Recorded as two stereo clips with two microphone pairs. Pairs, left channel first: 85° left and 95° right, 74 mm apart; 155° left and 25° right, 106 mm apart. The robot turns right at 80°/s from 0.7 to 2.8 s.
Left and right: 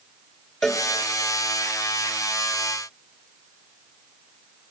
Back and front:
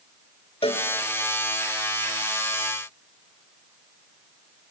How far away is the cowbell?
About 1.8 m.